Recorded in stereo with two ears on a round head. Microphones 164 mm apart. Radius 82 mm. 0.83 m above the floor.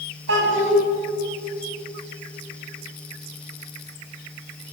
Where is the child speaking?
70° right (ahead or behind), 3.5 m.